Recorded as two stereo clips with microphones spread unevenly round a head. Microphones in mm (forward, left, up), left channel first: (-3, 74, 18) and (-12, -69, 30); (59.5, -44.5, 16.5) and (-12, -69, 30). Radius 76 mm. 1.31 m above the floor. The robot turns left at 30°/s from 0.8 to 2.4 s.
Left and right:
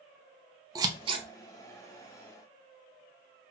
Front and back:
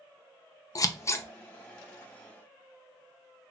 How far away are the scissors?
About 0.7 m.